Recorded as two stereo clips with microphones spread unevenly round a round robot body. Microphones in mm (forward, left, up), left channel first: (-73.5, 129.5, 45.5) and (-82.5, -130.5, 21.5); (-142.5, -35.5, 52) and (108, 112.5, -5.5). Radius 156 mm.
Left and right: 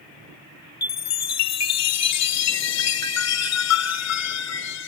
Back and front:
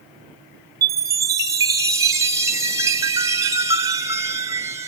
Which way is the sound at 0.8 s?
105° left.